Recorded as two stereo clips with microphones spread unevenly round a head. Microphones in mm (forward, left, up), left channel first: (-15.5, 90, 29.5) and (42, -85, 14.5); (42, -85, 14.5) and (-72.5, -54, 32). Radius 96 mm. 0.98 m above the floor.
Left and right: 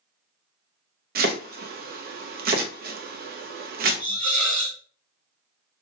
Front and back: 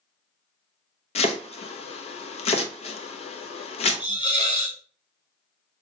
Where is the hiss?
65° right, 2.5 m.